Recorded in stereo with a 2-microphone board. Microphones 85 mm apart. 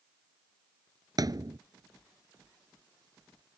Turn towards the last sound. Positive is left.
turn(degrees=-50)  # may be behind; listen again after turning